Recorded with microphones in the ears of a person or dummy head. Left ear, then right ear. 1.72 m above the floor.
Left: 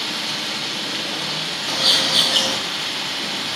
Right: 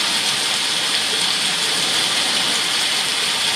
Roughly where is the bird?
Left.